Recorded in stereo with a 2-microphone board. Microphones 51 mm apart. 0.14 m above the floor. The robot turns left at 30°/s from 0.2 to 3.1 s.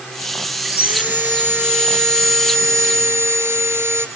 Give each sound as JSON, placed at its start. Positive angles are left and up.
{"t": 0.7, "sound": "sawing", "azimuth_deg": -30, "distance_m": 1.7}